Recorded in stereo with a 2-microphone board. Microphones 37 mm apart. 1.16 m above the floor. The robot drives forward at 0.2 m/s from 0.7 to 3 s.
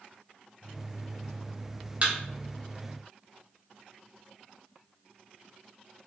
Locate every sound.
2.0 s a thud: 35° right (ahead or behind), 0.7 m